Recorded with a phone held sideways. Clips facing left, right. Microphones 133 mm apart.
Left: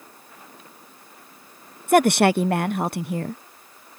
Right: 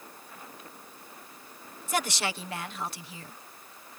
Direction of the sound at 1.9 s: 60° left (ahead or behind).